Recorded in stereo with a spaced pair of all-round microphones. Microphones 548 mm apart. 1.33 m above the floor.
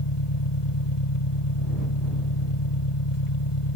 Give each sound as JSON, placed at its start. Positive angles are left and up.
{"t": 0.0, "sound": "an engine running", "side_deg": 65}